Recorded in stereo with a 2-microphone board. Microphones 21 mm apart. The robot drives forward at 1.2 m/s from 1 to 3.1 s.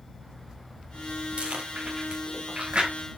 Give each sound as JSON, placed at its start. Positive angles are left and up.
{"t": 1.4, "sound": "chewing", "side_deg": -65, "distance_m": 4.5}